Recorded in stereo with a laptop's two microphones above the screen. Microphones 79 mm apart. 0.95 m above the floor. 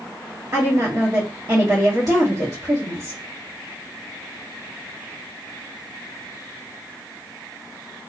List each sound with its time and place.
0.5 s a woman speaking: 45° right (ahead or behind), 1.5 m